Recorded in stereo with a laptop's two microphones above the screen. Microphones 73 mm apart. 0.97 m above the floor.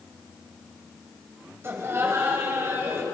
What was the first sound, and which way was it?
Laughter, 35° right (ahead or behind).